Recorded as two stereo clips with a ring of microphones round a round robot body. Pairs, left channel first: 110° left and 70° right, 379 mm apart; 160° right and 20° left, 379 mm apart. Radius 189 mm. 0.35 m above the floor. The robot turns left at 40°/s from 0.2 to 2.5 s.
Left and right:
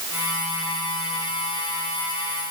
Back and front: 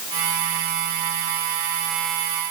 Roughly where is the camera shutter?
I don't hear a camera shutter.